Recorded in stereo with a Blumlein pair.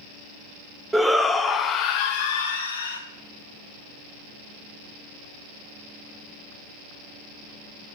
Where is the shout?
5° right, 0.9 m; by 3.0 s 65° left, 1.4 m.